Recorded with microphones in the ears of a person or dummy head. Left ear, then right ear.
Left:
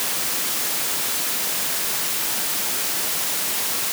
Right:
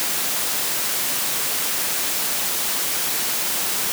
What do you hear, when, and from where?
Only background noise.